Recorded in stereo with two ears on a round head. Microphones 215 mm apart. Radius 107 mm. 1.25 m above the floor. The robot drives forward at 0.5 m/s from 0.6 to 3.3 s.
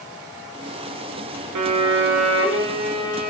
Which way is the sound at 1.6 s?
85° right.